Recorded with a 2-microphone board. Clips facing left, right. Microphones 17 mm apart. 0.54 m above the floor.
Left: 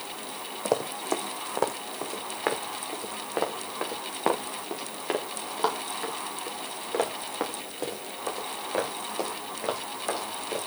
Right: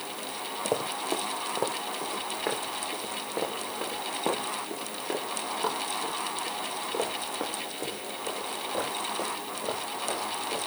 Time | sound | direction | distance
0.7 | running footsteps | 40° left (ahead or behind) | 1.5 m